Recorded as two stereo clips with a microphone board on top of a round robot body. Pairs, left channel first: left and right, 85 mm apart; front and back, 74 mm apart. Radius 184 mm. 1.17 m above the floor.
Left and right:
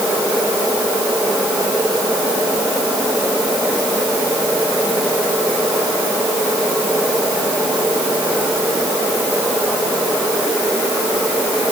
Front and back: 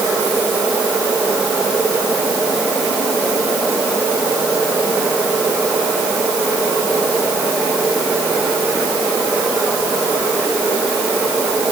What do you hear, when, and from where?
Only background noise.